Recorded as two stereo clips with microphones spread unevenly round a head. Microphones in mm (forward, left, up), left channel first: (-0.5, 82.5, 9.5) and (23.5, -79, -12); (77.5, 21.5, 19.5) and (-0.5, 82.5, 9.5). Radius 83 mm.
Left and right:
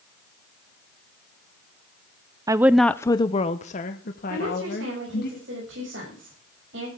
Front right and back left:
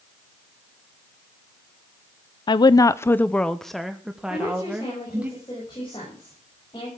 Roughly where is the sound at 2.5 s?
Ahead right.